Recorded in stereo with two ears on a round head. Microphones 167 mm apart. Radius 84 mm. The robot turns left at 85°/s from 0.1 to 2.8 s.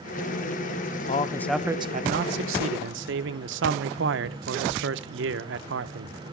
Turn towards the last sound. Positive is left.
turn(degrees=-110)